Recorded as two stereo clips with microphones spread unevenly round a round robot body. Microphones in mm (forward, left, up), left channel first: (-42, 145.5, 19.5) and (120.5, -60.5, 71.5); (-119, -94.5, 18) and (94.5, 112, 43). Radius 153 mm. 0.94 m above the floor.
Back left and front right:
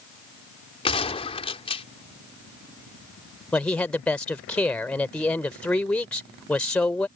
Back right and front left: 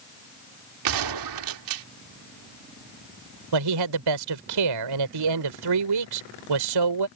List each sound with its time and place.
0.8 s a gunshot: 60° left
3.5 s a man speaking: 45° left